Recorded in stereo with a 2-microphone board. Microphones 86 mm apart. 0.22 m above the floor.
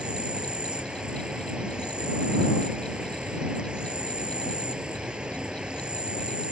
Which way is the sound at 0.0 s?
10° right (ahead or behind).